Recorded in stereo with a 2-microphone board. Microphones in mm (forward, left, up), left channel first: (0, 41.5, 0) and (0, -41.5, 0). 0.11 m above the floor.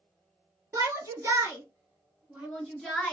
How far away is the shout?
About 2.0 m.